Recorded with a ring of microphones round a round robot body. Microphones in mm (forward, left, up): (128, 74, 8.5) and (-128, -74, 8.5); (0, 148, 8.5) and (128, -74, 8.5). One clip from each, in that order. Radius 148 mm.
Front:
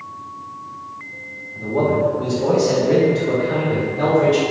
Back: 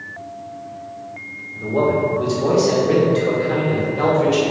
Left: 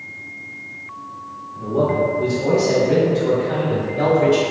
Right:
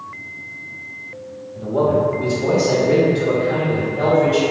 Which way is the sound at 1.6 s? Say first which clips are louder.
Even, right 1 dB; 120° right.